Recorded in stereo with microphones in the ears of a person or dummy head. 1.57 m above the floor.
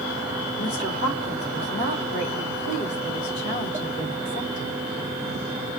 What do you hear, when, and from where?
0.6 s a woman speaking: 40° left (ahead or behind), 3.5 m